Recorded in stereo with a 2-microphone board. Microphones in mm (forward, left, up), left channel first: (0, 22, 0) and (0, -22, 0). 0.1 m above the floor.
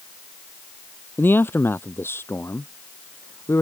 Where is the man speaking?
50° left (ahead or behind); by 3.6 s 75° left (ahead or behind).